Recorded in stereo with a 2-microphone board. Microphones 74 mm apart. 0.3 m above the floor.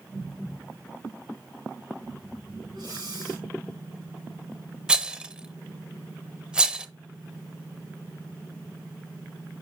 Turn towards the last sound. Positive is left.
turn(degrees=-15)  # may be behind; listen again after turning